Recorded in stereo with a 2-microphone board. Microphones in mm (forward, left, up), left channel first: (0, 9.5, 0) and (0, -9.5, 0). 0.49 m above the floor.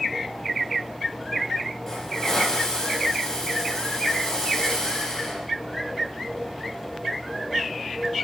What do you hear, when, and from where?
1.9 s a hiss: 20° left (ahead or behind), 5 m